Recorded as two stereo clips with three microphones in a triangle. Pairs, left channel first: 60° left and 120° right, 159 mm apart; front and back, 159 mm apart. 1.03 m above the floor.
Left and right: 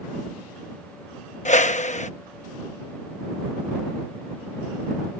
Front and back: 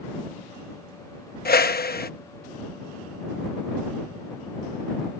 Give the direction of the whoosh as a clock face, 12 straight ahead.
11 o'clock.